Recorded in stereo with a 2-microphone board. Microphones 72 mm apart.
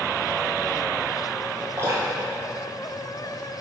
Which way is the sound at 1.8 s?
35° right (ahead or behind).